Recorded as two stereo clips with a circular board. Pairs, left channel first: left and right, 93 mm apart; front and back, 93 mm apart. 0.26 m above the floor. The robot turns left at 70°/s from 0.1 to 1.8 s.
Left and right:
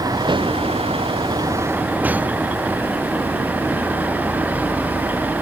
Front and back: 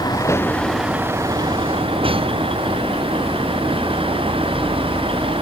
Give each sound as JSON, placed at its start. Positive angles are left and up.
{"t": 0.0, "sound": "a vehicle", "azimuth_deg": -45}